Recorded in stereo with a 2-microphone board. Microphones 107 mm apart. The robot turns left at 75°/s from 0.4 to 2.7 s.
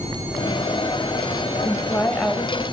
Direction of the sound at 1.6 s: 65° left.